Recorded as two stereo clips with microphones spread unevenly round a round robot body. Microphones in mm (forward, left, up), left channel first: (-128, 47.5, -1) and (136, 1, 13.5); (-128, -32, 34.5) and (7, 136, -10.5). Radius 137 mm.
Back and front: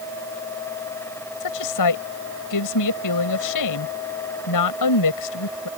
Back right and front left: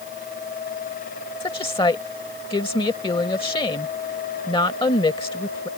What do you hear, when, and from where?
1.4 s a woman speaking: 165° left